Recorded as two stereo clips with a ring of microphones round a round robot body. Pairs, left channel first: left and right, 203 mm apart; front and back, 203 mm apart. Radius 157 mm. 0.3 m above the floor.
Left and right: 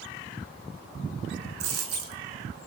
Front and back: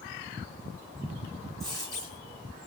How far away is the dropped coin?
About 2.5 m.